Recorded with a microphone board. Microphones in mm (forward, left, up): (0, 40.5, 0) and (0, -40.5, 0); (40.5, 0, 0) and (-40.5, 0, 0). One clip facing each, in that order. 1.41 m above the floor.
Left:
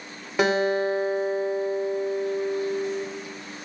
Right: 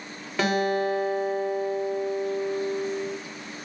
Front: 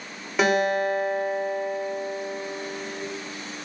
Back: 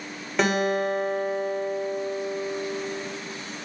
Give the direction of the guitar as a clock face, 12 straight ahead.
9 o'clock.